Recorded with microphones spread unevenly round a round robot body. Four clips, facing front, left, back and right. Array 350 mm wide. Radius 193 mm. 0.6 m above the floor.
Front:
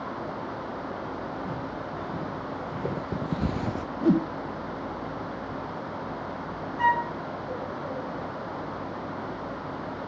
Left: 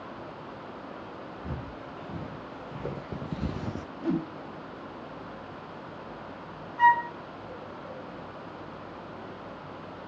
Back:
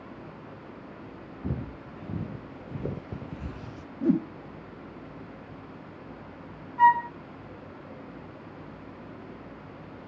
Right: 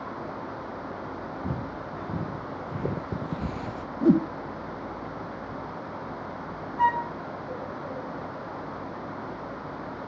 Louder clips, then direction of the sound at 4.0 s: Right 9 dB, front 2 dB; 75° right.